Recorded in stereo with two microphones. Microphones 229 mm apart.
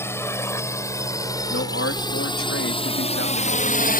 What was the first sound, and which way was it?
A drone, 10° left (ahead or behind).